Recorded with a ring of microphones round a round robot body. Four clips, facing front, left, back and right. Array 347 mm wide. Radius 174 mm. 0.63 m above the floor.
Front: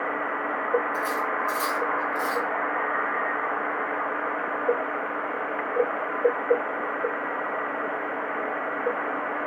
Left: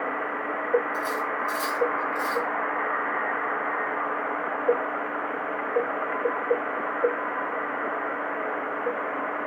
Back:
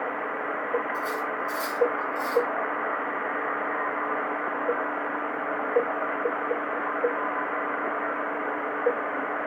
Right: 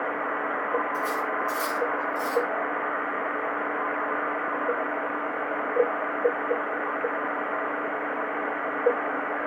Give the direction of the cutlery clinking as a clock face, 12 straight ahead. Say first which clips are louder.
Right 1 dB, front 2 dB; 12 o'clock.